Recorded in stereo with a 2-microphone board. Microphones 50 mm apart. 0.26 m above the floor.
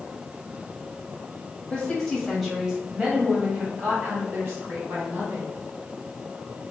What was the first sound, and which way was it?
A woman speaking, 15° left (ahead or behind).